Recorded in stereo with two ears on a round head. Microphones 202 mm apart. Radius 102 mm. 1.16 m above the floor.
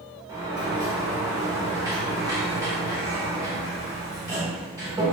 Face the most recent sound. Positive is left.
turn(degrees=-15)  # may be behind; listen again after turning